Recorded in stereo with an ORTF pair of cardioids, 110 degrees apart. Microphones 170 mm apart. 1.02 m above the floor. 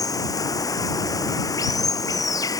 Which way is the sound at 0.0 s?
20° left.